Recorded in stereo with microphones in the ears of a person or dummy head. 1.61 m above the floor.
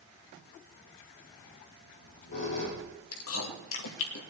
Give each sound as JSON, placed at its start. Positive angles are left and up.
{"t": 1.8, "sound": "a squeak", "side_deg": 50, "distance_m": 5.0}
{"t": 3.1, "sound": "chewing", "side_deg": 75, "distance_m": 2.0}